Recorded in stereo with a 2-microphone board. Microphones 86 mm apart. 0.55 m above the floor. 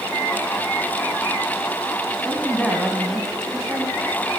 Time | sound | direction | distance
2.1 | a woman speaking | 5° left (ahead or behind) | 3.5 m